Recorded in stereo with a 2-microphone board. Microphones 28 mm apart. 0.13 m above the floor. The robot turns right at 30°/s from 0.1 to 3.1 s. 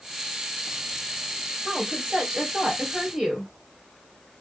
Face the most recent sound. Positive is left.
turn(degrees=-25)